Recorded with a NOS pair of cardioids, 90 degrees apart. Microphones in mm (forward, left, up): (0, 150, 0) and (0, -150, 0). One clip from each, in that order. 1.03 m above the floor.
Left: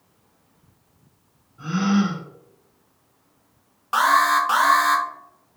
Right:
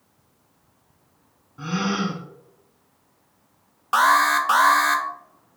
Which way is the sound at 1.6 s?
60° right.